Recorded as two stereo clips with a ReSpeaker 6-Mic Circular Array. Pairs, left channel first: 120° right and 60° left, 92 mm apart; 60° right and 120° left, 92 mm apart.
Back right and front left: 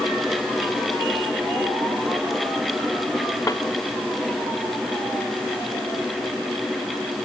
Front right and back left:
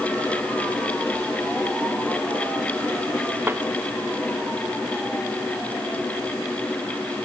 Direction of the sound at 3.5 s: 175° right.